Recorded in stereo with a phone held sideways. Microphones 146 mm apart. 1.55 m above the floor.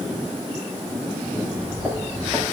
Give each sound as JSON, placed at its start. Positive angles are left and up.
{"t": 1.4, "sound": "footsteps", "side_deg": -5, "distance_m": 7.0}